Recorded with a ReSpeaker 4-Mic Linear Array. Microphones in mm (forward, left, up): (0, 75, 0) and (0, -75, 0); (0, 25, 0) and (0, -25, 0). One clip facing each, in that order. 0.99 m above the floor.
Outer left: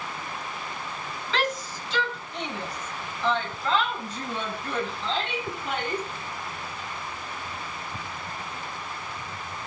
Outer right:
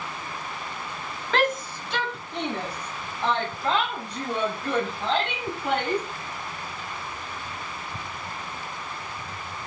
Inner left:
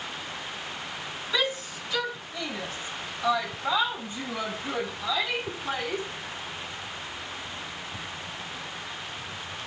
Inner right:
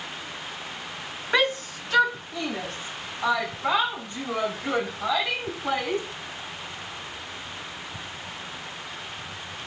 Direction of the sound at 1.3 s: 50° right (ahead or behind).